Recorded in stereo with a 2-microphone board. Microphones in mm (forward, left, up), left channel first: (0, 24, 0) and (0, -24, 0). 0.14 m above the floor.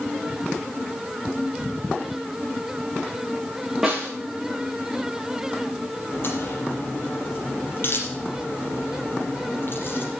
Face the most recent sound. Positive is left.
turn(degrees=55)  # may be behind; listen again after turning